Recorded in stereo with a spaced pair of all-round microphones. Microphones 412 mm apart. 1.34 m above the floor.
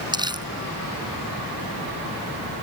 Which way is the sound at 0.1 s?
10° right (ahead or behind).